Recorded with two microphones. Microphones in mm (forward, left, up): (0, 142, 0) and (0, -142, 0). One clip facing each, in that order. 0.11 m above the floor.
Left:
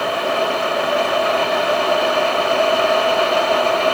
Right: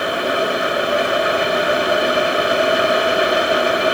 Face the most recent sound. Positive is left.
No sound to turn to.